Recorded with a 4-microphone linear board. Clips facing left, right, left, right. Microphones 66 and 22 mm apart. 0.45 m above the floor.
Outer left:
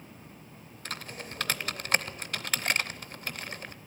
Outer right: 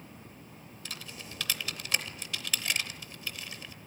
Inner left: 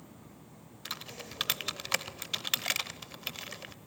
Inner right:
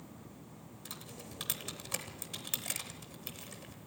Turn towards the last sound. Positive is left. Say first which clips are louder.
# outer left 6 dB, inner left 8 dB
turn(degrees=45)  # may be behind; listen again after turning